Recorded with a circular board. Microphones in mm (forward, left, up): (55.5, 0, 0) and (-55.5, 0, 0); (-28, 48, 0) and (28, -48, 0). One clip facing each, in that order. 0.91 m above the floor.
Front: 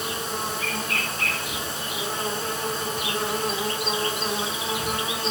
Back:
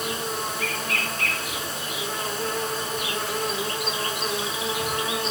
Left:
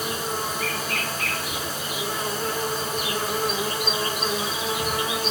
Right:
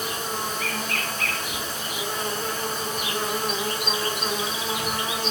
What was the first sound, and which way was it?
An insect, 40° left.